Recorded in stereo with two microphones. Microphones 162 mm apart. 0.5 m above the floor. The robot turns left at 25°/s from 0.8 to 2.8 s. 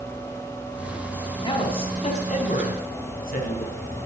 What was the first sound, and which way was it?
A man speaking, 150° left.